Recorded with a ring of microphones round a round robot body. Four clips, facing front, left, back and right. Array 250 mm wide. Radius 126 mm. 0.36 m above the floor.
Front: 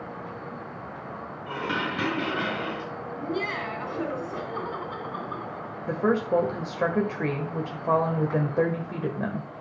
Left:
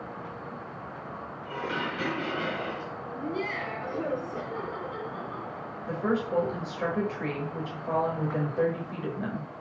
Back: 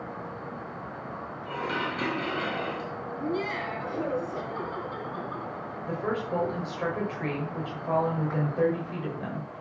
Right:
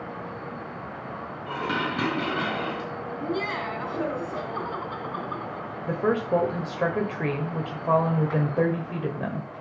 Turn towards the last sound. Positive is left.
turn(degrees=-40)